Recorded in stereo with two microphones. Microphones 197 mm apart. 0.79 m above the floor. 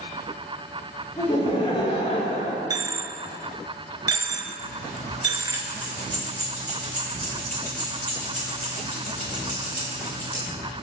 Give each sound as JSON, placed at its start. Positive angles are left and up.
{"t": 1.2, "sound": "laughter", "side_deg": 20, "distance_m": 1.9}
{"t": 2.7, "sound": "a dropped coin", "side_deg": -20, "distance_m": 0.8}
{"t": 4.6, "sound": "keys jangling", "side_deg": 5, "distance_m": 2.5}